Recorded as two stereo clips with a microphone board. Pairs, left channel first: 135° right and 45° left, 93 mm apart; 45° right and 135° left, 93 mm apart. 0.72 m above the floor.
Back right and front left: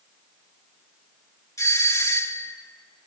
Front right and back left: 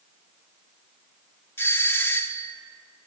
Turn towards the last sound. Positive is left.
turn(degrees=-100)